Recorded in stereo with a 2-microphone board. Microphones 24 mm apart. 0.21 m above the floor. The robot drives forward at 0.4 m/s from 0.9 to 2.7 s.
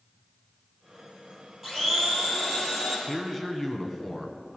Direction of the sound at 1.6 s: 10° right (ahead or behind).